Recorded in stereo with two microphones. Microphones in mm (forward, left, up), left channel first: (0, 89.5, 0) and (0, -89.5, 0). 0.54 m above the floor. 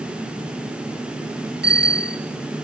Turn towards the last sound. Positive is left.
turn(degrees=-70)  # may be behind; listen again after turning